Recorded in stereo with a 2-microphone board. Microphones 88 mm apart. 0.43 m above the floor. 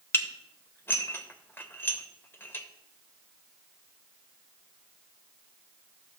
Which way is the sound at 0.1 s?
25° left (ahead or behind).